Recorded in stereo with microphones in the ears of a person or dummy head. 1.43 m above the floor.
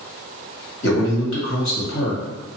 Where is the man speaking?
70° left (ahead or behind), 1.3 m.